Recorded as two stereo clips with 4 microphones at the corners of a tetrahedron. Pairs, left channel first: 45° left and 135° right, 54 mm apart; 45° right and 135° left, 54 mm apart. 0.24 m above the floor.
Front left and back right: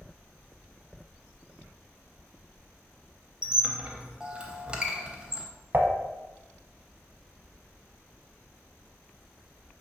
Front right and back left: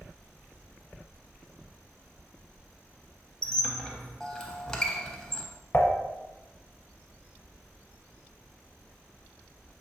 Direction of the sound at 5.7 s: 90° right.